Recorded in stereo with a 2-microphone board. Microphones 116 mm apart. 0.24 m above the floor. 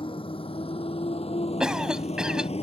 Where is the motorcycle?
55° left (ahead or behind); by 2.6 s 75° left (ahead or behind).